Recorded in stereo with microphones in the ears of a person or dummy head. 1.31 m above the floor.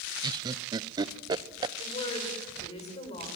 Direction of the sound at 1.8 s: 35° left (ahead or behind).